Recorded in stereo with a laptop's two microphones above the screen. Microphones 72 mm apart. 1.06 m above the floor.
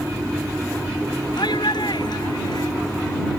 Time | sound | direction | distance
1.4 | a shout | 85° left | ?